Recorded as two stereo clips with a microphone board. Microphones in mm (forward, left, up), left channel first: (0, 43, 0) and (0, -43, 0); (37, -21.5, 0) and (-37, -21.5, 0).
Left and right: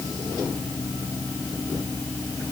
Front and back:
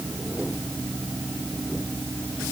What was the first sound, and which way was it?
Only background noise.